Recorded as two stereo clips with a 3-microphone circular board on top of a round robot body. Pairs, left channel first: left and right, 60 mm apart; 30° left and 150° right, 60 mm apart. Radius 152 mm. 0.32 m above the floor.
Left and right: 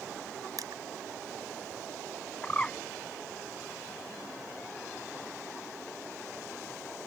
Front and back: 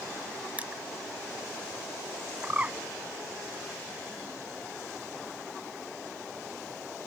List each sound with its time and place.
0.6 s crushing: 80° right
2.4 s a bird: 155° left